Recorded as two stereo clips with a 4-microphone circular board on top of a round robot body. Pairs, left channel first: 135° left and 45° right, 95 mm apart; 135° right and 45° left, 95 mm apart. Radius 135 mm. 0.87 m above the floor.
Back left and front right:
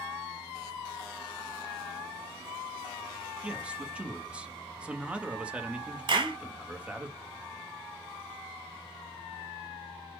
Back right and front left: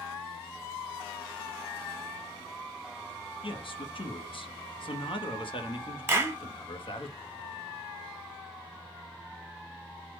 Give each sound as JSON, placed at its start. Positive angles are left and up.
{"t": 3.4, "sound": "a man speaking", "azimuth_deg": -125, "distance_m": 0.9}
{"t": 6.1, "sound": "a clap", "azimuth_deg": -20, "distance_m": 1.5}